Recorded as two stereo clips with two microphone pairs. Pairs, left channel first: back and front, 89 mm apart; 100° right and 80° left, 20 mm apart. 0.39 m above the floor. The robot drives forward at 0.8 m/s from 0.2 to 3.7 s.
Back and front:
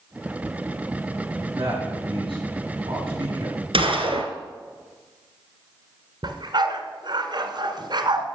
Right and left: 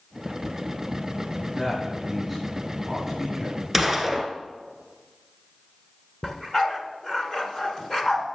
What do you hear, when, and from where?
1.6 s a man speaking: 10° right, 5 m; by 3.5 s 15° right, 3.5 m
3.7 s a gunshot: 5° right, 1.5 m
6.2 s a dog barking: 35° right, 1.3 m